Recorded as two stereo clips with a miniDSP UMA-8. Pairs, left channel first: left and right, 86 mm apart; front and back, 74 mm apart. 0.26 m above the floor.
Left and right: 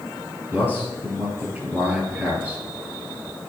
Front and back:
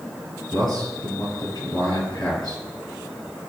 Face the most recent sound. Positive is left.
turn(degrees=-20)